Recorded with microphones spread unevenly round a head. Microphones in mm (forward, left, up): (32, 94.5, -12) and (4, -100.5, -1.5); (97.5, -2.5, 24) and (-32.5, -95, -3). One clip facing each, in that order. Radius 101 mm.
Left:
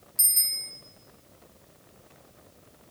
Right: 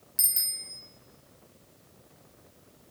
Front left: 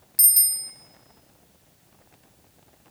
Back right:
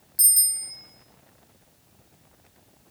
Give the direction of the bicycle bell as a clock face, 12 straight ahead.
1 o'clock.